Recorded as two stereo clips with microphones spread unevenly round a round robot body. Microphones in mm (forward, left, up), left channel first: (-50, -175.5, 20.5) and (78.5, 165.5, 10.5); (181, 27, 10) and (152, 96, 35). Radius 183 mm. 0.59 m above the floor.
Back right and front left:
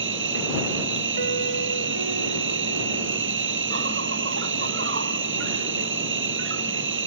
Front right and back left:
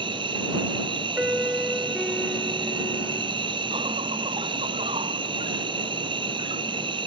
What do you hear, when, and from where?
0.0 s an insect: 130° left
1.2 s a piano: 40° left